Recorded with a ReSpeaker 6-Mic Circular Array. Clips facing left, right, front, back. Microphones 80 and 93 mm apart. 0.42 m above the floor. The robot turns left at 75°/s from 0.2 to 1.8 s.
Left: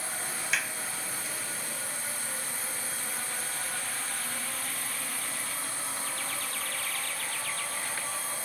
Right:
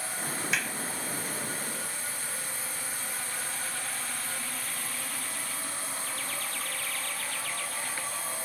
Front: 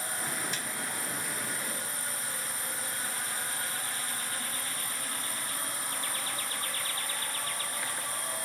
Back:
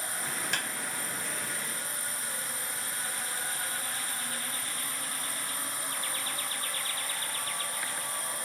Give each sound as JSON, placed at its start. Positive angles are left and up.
{"t": 0.5, "sound": "a clap", "azimuth_deg": 180}